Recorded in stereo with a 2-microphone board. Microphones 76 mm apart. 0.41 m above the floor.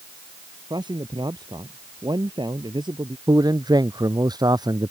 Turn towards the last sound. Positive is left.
turn(degrees=-65)  # may be behind; listen again after turning